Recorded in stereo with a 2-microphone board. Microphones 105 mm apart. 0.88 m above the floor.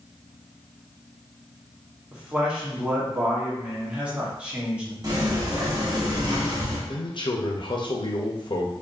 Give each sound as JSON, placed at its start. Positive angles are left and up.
{"t": 2.1, "sound": "a man speaking", "side_deg": -10, "distance_m": 1.4}
{"t": 5.0, "sound": "a sliding door", "side_deg": -40, "distance_m": 1.1}
{"t": 6.9, "sound": "a man speaking", "side_deg": 50, "distance_m": 0.8}